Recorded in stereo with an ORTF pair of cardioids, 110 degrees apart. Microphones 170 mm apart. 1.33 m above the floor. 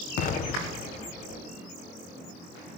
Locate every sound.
0.2 s an explosion: 55° left, 0.5 m